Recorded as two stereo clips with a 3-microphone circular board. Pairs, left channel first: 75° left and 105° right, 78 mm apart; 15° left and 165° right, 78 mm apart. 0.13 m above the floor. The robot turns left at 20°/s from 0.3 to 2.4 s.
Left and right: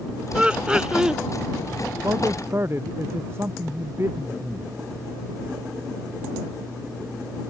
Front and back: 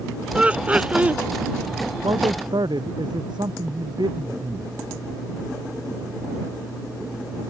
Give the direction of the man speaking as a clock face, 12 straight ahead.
5 o'clock.